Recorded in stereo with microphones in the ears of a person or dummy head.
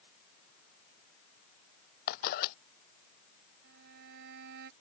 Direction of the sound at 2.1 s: 60° left (ahead or behind).